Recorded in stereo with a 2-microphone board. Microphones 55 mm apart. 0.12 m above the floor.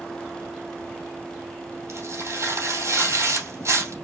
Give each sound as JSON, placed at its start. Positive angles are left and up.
{"t": 1.9, "sound": "tearing paper", "side_deg": -65, "distance_m": 2.5}